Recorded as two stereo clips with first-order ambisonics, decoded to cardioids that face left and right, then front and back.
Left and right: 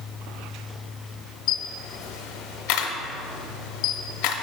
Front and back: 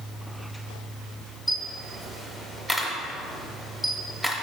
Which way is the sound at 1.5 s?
95° left.